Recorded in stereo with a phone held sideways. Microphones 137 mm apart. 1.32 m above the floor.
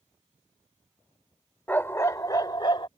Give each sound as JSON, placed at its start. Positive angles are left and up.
{"t": 1.7, "sound": "a dog barking", "side_deg": 15}